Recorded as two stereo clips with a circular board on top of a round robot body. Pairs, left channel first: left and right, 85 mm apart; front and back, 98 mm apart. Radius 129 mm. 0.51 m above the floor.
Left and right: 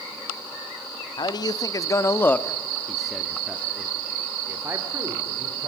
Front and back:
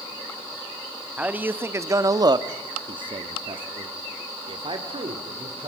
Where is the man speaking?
105° left, 1.5 m; by 5.7 s 140° right, 3 m.